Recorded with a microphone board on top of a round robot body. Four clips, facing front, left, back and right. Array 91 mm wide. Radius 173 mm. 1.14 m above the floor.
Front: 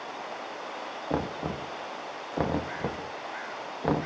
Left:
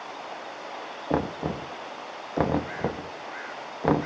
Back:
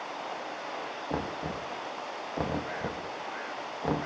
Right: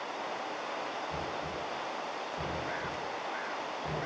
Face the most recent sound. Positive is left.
turn(degrees=70)